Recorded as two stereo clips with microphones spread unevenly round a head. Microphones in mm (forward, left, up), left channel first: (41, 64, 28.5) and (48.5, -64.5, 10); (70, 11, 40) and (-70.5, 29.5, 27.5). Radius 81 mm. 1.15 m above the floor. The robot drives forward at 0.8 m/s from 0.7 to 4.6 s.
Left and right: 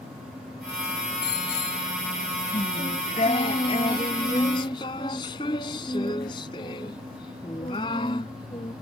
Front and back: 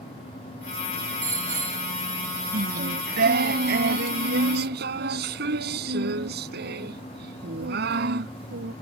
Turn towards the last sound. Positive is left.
turn(degrees=160)